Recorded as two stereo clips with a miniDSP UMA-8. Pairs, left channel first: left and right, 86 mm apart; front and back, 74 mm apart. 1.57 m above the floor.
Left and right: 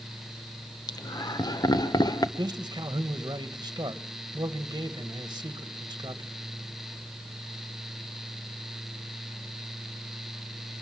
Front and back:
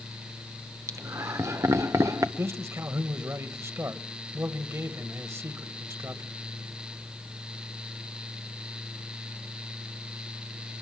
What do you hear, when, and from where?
0.9 s laughter: 135° left, 1.3 m
2.4 s a man speaking: 130° right, 1.6 m